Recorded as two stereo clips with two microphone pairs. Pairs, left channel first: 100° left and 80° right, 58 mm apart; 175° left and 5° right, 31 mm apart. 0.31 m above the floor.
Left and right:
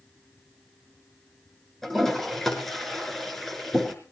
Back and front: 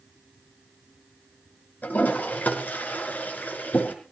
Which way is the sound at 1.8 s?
175° right.